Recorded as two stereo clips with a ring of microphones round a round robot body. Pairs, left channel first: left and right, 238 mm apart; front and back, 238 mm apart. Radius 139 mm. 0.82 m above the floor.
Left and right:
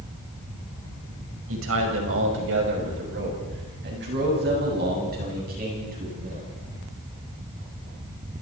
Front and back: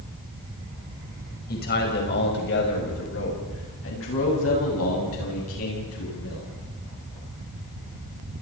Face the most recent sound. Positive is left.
turn(degrees=-30)